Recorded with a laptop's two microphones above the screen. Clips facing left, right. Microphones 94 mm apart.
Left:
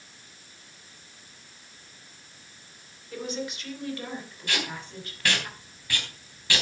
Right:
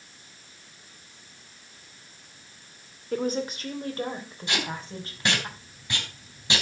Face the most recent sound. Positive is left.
turn(degrees=-20)  # may be behind; listen again after turning